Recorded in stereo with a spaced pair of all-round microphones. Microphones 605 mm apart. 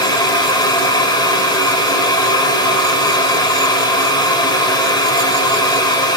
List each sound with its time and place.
0.0 s a fan: 5° left (ahead or behind), 1.7 m